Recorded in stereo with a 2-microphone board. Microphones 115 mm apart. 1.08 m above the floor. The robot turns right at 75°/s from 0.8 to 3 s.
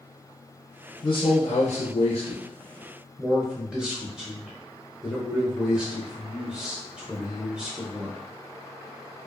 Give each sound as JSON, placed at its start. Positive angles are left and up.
{"t": 1.0, "sound": "a man speaking", "azimuth_deg": 35, "distance_m": 0.5}